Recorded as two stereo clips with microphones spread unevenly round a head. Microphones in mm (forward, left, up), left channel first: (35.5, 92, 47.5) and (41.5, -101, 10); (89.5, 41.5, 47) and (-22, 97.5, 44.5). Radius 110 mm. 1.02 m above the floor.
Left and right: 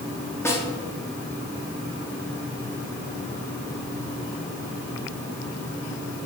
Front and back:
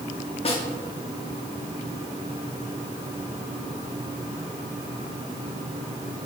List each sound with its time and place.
0.5 s a snare drum: 10° left, 2.5 m